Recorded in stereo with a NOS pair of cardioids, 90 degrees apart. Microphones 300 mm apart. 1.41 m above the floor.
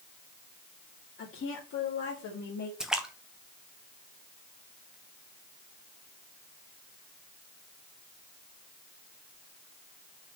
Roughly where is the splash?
Ahead.